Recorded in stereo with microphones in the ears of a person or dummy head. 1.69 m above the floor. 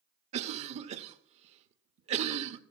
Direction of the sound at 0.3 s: 35° right (ahead or behind).